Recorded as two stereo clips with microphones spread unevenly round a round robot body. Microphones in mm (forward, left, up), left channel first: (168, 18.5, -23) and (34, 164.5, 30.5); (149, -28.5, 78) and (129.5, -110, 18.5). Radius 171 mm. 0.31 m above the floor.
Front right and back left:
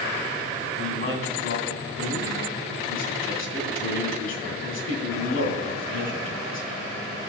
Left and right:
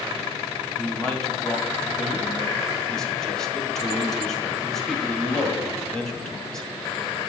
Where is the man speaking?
30° right, 2 m.